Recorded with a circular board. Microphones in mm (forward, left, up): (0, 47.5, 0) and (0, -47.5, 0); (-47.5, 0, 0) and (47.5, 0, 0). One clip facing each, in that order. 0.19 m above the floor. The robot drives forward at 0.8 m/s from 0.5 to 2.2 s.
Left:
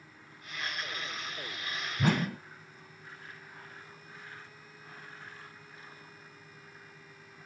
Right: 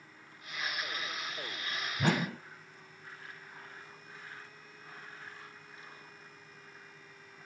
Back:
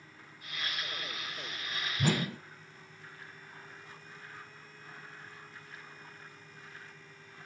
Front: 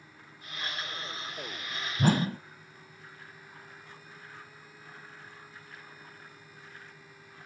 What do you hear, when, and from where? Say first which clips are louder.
2.0 s a whoosh: left 2 dB, front 5 dB; 5° left, 0.8 m